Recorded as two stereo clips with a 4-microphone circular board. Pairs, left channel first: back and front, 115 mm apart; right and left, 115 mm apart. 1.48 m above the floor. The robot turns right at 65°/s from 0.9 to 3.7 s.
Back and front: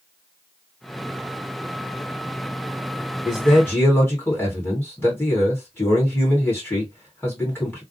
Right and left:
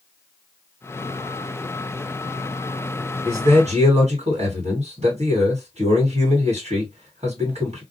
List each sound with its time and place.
3.2 s a man speaking: 80° left, 1.5 m; by 7.8 s 110° left, 1.5 m